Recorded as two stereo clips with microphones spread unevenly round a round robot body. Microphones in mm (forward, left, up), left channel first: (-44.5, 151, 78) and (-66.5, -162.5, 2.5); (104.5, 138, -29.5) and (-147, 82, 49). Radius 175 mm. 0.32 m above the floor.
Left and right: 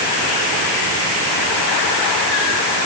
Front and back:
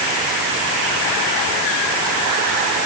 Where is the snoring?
I don't hear snoring.